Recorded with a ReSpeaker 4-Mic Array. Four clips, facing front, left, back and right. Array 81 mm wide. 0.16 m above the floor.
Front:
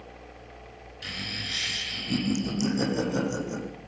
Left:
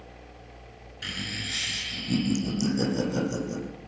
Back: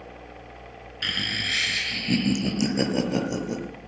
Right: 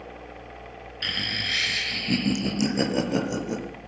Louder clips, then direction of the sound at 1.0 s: Right 4 dB, back 7 dB; 160° right.